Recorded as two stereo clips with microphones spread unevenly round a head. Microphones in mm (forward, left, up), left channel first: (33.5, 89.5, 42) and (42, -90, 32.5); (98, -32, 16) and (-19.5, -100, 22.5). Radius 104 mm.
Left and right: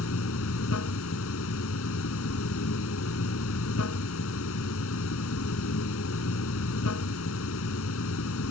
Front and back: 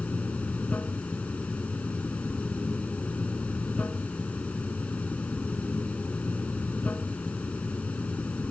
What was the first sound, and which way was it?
Running water, 115° left.